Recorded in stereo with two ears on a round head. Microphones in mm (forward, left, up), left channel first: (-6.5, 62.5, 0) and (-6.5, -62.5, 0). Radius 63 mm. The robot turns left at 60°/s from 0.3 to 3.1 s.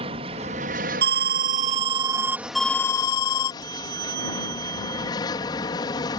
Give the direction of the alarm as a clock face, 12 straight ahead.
3 o'clock.